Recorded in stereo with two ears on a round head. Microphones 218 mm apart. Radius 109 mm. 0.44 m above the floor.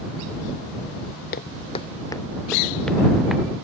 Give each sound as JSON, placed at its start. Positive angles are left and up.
{"t": 1.3, "sound": "footsteps", "side_deg": 45}